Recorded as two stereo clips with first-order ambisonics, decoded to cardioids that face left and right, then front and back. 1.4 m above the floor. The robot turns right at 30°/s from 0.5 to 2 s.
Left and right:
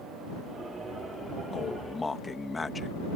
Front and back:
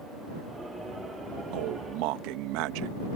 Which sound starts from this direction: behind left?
A man speaking, at 1.5 s.